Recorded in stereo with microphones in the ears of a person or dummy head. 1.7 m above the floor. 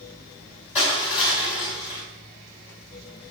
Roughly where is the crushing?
Left.